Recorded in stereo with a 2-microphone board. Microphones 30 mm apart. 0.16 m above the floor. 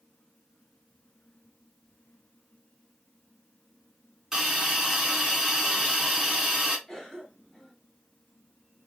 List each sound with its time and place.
4.3 s a hiss: 15° right (ahead or behind), 1.6 m
6.9 s a cough: 5° left (ahead or behind), 1.9 m